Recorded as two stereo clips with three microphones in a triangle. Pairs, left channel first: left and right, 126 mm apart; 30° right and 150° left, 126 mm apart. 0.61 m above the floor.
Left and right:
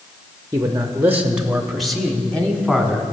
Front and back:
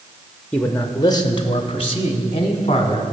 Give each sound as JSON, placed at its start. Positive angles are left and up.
{"t": 0.5, "sound": "a man speaking", "azimuth_deg": -90, "distance_m": 0.6}